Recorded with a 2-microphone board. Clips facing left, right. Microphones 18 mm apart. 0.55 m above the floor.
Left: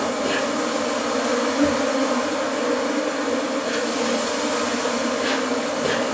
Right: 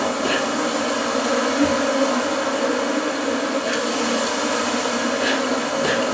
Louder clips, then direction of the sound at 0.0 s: Right 1 dB; 30° right (ahead or behind).